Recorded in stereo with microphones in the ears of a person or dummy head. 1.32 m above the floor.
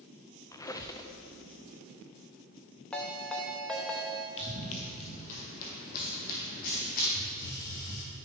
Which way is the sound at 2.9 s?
5° left (ahead or behind).